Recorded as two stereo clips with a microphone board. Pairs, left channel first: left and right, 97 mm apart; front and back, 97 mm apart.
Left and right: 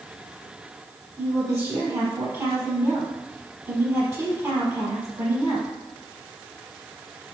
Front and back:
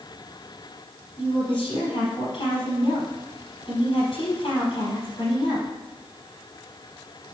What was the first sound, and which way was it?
A woman speaking, 35° right.